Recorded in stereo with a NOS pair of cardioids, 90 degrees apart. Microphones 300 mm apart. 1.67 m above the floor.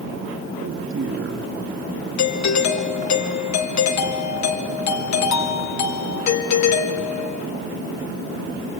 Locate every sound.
0.6 s a man speaking: 45° right, 3.5 m
2.2 s a doorbell: 65° left, 2.5 m